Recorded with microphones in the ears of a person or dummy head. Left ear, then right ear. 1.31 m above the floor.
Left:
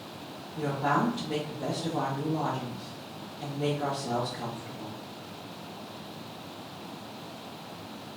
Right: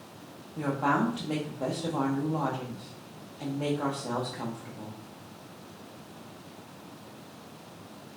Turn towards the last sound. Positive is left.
turn(degrees=-35)  # may be behind; listen again after turning